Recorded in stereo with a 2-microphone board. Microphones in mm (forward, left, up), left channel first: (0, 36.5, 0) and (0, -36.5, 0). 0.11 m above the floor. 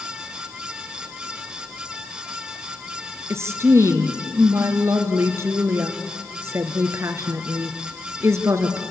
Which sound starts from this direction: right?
A woman speaking, at 3.3 s.